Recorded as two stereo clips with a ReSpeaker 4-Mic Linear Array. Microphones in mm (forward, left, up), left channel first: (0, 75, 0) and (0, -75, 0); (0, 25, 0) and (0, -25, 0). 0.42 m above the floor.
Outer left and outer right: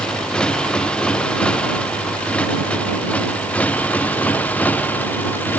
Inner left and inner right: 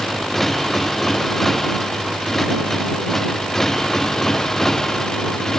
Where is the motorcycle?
5° left (ahead or behind); by 5.6 s 10° left (ahead or behind).